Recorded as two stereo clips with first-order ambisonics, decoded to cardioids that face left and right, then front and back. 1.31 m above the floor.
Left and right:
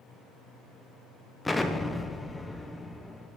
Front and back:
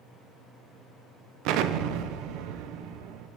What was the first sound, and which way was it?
An explosion, 175° left.